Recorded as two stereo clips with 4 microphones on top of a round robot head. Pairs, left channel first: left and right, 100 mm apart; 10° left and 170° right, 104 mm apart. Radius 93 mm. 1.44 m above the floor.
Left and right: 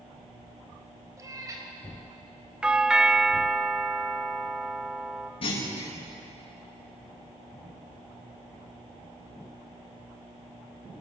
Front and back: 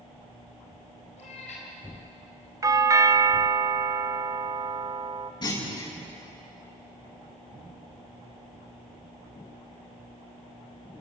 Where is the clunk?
55° left, 9.5 m.